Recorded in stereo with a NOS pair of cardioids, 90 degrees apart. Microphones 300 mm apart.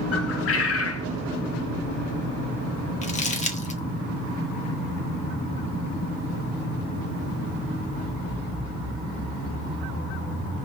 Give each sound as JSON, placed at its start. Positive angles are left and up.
{"t": 0.1, "sound": "a bird", "azimuth_deg": 50, "distance_m": 0.6}
{"t": 3.0, "sound": "crumpling", "azimuth_deg": 25, "distance_m": 0.9}